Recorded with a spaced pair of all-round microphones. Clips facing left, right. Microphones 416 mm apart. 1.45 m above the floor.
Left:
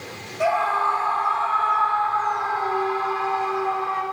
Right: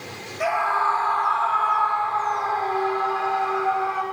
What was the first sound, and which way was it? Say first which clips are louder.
A scream: left 3 dB; 60° left (ahead or behind).